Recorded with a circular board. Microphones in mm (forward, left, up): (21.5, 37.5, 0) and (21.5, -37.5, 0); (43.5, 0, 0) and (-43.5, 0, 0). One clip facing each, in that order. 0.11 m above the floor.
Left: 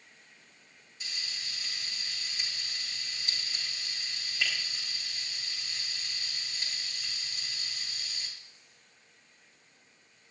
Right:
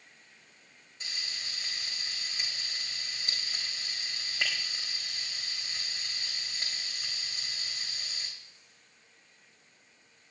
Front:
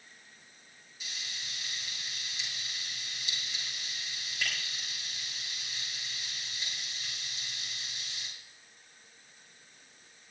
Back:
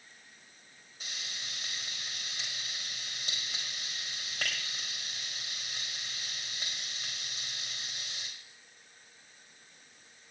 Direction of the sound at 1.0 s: 135° right.